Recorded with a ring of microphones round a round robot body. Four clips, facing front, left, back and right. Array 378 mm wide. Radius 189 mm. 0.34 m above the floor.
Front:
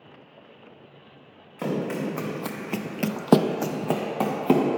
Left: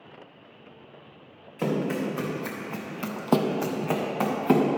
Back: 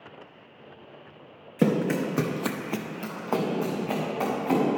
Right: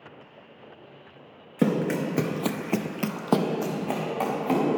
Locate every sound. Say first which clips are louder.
1.6 s running footsteps: right 3 dB, back 4 dB; 135° right, 2 m; by 4.7 s 25° left, 3 m